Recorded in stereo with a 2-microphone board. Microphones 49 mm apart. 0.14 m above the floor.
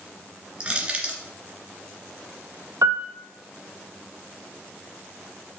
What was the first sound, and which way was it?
Crushing, 20° right (ahead or behind).